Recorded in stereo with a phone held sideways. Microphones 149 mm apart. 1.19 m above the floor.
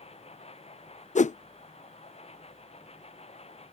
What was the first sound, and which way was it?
A machine running, 45° left (ahead or behind).